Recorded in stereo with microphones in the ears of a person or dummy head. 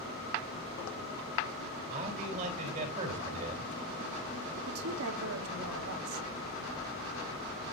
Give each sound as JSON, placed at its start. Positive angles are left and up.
{"t": 1.9, "sound": "a man speaking", "side_deg": -40, "distance_m": 3.5}
{"t": 4.7, "sound": "a woman speaking", "side_deg": -85, "distance_m": 1.4}